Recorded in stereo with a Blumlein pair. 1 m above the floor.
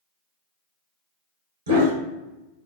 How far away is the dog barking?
About 1.3 m.